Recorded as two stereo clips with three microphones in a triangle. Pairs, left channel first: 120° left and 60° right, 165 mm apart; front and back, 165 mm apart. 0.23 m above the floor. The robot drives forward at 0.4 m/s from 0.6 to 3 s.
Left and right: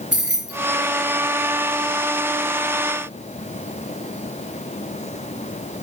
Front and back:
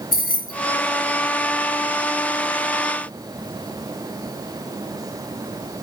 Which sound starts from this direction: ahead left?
Keys jangling, at 0.1 s.